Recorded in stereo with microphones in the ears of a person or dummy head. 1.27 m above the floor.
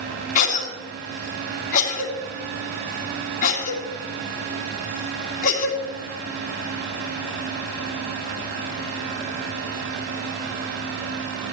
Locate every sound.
0.3 s a cough: 45° left (ahead or behind), 2.5 m